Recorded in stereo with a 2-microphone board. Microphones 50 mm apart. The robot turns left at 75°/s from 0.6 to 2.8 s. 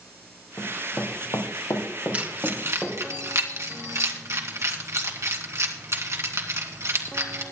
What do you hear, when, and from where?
0.6 s running footsteps: 30° left (ahead or behind), 2.5 m; by 3.0 s 5° right (ahead or behind), 3.5 m
2.1 s keys jangling: 25° right (ahead or behind), 2 m; by 7.4 s 65° right (ahead or behind), 2 m